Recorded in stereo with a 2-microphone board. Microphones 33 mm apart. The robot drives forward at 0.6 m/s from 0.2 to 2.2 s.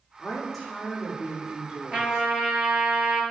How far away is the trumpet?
About 2 m.